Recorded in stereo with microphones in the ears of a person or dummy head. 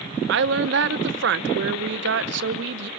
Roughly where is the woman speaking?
Right.